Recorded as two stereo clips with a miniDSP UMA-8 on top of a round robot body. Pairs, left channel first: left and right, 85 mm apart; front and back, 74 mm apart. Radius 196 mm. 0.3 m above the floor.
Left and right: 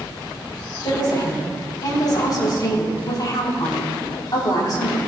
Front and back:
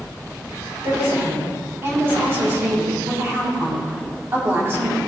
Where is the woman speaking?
125° left, 4 m.